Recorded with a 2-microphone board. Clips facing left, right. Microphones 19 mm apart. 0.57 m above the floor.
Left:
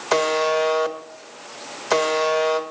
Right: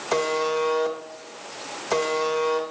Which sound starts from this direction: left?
A buzzer, at 0.1 s.